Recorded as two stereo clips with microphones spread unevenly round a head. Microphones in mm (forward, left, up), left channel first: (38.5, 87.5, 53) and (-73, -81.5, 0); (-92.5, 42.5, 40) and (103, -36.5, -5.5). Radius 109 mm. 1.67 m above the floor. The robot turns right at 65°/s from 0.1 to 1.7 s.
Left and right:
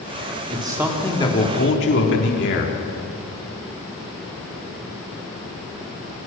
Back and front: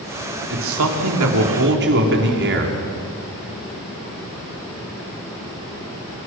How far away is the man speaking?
About 4.5 m.